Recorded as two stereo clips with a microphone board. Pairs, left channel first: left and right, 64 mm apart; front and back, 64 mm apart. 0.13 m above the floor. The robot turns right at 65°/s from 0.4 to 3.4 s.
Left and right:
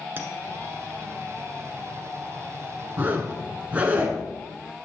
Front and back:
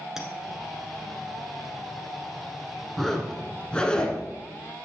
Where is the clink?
105° right, 1.1 m.